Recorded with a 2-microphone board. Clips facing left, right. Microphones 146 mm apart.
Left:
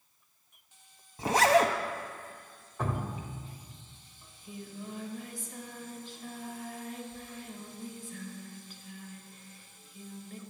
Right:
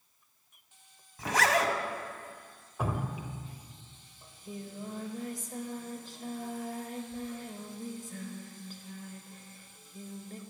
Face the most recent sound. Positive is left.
turn(degrees=-40)  # may be behind; listen again after turning